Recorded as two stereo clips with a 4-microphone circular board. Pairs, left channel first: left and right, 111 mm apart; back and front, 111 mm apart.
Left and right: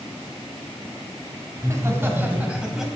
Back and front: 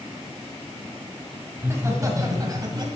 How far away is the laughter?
About 1.7 m.